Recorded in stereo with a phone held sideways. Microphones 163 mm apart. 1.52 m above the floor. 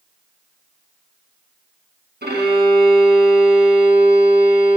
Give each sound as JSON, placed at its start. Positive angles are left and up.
{"t": 2.2, "sound": "a violin", "side_deg": -90, "distance_m": 2.0}